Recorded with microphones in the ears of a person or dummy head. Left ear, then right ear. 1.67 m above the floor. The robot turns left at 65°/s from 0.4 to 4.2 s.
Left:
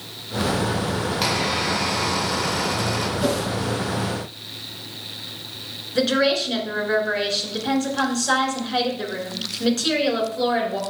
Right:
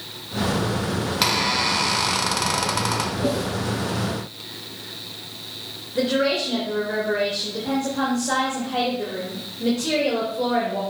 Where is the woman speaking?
50° left (ahead or behind), 3 m.